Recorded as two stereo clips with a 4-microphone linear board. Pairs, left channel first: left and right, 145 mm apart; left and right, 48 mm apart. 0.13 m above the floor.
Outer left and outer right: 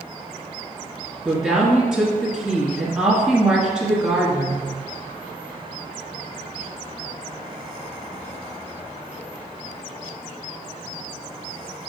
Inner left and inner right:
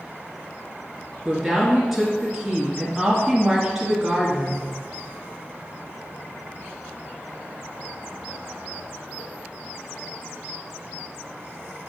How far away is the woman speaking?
About 2 m.